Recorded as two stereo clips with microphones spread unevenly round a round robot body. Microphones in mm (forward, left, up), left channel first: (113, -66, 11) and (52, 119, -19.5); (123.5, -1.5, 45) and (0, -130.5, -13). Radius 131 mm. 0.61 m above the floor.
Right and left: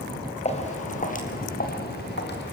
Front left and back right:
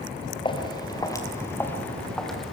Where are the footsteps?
15° right, 5 m; by 2.5 s 40° right, 5.5 m.